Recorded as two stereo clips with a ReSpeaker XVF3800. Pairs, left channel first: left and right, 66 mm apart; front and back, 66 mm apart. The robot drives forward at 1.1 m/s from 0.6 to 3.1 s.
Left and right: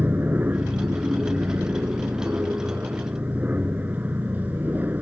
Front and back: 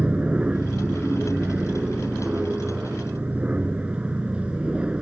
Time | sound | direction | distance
0.0 | an aircraft | 125° right | ?